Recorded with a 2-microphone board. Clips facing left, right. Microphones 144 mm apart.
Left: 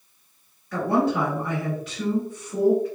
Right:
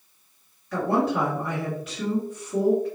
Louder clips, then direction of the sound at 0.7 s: Left 1 dB; 5° right (ahead or behind).